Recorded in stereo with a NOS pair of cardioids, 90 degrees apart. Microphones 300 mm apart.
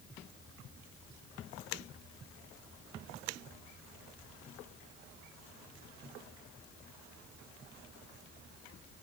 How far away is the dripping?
I don't hear dripping.